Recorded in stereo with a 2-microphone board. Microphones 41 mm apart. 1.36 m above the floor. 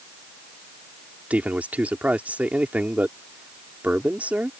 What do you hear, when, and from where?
1.3 s a man speaking: 40° right (ahead or behind)